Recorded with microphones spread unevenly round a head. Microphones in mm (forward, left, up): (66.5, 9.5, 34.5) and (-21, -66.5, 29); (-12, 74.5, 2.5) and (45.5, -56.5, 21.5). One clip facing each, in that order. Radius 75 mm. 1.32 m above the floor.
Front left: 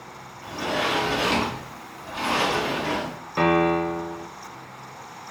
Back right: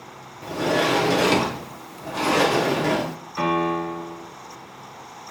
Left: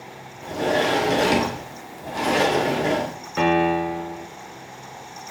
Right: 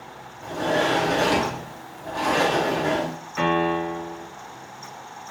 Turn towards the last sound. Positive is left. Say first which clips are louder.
# front left 3 dB, left 3 dB
turn(degrees=85)